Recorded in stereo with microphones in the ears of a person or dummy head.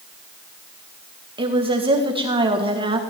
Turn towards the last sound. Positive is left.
turn(degrees=-30)  # may be behind; listen again after turning